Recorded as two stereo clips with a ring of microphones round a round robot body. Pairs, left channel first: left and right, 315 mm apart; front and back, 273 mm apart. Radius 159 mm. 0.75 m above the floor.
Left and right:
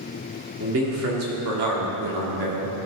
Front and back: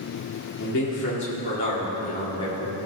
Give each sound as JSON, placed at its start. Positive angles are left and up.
{"t": 0.6, "sound": "a man speaking", "azimuth_deg": -45, "distance_m": 2.0}